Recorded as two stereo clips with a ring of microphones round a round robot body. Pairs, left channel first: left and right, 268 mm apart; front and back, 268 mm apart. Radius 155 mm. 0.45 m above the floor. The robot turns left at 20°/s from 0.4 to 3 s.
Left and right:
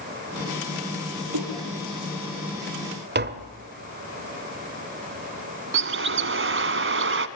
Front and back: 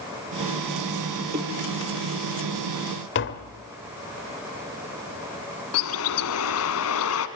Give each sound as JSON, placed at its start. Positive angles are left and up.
{"t": 1.3, "sound": "a snare drum", "azimuth_deg": -120, "distance_m": 9.0}
{"t": 3.1, "sound": "tapping", "azimuth_deg": -45, "distance_m": 1.5}
{"t": 5.7, "sound": "a bird", "azimuth_deg": -45, "distance_m": 1.4}